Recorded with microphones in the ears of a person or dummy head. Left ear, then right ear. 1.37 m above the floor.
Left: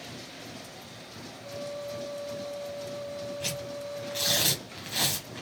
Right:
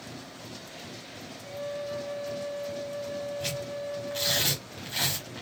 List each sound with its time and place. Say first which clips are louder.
1.4 s a flute: right 2 dB; 70° right (ahead or behind), 1.3 m
3.4 s tearing paper: right 1 dB; centre (ahead or behind), 1.4 m